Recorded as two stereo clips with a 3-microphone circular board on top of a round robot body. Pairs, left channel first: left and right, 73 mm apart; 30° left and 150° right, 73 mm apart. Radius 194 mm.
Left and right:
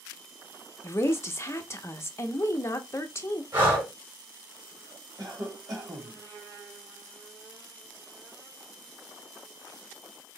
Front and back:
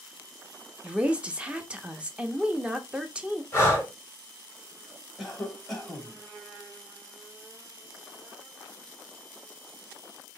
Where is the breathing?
30° right, 3.5 m.